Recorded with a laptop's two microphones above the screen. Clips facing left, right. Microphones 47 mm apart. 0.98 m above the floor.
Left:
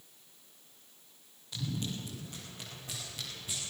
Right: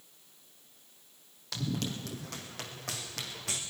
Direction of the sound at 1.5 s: 75° right (ahead or behind).